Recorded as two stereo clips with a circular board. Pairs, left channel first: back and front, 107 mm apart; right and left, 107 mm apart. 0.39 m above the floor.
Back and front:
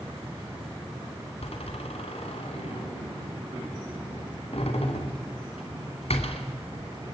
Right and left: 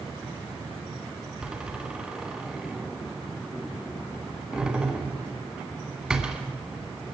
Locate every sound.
1.4 s a door slam: 175° left, 2.5 m